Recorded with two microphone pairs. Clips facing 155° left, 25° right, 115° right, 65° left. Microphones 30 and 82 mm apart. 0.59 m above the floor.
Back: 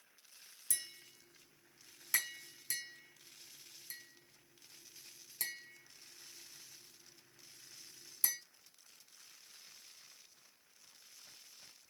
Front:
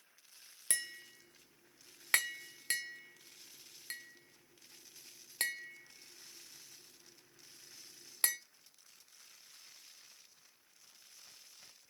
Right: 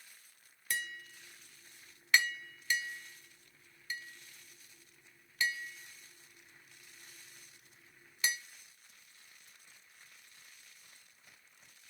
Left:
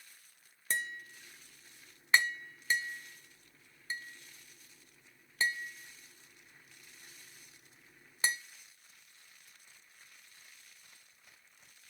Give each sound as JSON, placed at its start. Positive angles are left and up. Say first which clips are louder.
{"t": 0.7, "sound": "tapping", "louder": "front 6 dB, left 2 dB", "azimuth_deg": 10, "distance_m": 1.2}